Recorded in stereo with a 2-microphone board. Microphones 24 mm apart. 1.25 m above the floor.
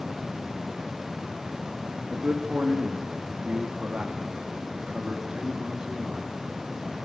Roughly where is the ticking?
No ticking in this recording.